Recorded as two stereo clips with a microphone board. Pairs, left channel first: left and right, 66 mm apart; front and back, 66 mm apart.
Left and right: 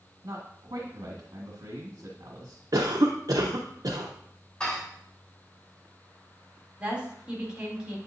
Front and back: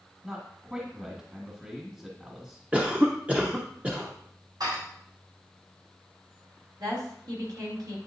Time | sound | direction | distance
0.2 | a man speaking | 110° right | 1.7 m
2.7 | a cough | 110° right | 0.7 m
4.6 | dishes clattering | 170° left | 3.5 m
6.8 | a woman speaking | 165° right | 2.5 m